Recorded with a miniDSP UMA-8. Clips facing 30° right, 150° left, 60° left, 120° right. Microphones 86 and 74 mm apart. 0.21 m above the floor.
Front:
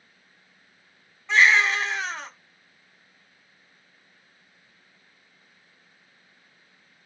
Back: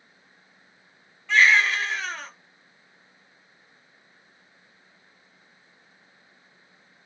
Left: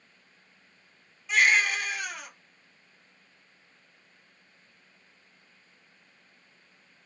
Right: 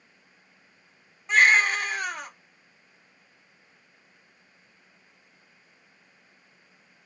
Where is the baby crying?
90° right, 0.8 m.